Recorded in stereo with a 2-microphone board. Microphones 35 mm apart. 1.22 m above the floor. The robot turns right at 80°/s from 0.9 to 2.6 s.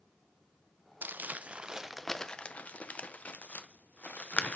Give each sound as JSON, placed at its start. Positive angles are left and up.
{"t": 1.0, "sound": "crumpling", "side_deg": -65, "distance_m": 0.7}